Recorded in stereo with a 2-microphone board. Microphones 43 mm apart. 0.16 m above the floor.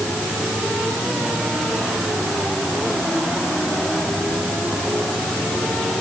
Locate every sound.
Only background noise.